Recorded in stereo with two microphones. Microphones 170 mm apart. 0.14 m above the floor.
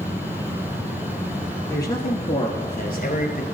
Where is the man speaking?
20° left (ahead or behind), 1.0 m; by 3.4 s 55° left (ahead or behind), 1.7 m.